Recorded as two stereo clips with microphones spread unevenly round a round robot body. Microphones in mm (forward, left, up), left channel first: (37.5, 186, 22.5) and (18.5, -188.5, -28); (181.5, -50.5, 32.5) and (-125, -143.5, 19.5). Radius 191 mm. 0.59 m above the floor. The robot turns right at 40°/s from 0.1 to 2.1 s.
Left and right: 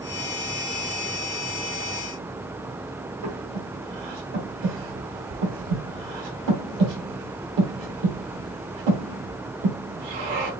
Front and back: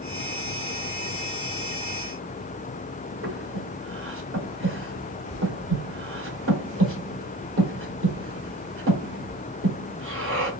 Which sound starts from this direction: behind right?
Breathing, at 3.2 s.